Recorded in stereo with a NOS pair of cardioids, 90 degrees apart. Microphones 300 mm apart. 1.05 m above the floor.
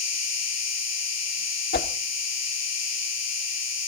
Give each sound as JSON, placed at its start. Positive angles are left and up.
{"t": 0.0, "sound": "an insect", "azimuth_deg": 60, "distance_m": 5.0}
{"t": 1.7, "sound": "a whoosh", "azimuth_deg": 35, "distance_m": 1.7}